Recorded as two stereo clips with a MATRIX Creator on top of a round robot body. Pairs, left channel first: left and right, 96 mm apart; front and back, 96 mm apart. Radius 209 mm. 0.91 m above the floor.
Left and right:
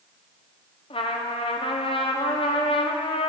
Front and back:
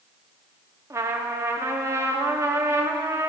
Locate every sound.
0.9 s a trumpet: 120° left, 1.4 m